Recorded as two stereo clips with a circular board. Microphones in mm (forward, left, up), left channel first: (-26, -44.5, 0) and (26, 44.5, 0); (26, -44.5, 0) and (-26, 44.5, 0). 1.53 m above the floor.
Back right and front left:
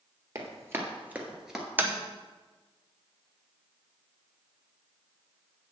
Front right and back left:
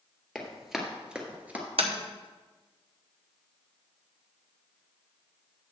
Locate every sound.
0.3 s running footsteps: 25° left, 1.8 m; by 1.6 s 150° left, 1.5 m
1.8 s tapping: 135° left, 0.9 m